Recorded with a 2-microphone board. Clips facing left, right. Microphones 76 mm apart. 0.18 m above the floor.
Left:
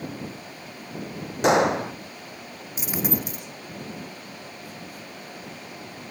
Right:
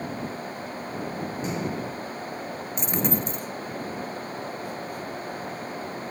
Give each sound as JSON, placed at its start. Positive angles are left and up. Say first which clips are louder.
{"t": 1.4, "sound": "a gunshot", "louder": "left 14 dB", "side_deg": 75}
{"t": 2.8, "sound": "a dropped coin", "louder": "right 1 dB", "side_deg": 5}